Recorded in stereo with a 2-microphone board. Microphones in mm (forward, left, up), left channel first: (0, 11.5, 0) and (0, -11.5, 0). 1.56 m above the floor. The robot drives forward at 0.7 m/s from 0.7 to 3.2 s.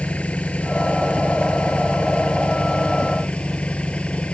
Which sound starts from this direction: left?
An engine running, at 0.0 s.